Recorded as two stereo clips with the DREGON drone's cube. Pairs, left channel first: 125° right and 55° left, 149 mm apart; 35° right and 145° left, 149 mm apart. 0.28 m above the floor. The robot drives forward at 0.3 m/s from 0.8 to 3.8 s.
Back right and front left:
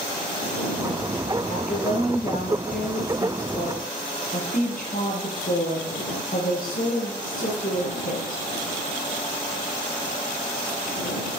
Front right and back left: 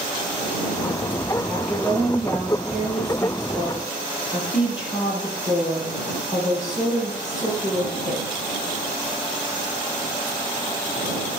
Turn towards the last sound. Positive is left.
turn(degrees=-130)